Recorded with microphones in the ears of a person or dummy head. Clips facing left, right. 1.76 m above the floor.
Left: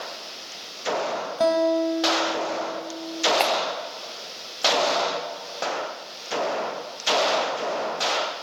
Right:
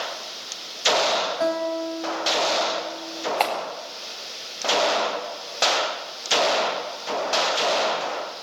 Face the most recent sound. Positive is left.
turn(degrees=15)  # may be behind; listen again after turning